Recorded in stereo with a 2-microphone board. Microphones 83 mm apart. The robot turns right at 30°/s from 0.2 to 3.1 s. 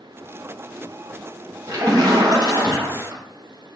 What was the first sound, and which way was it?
A splash, 135° right.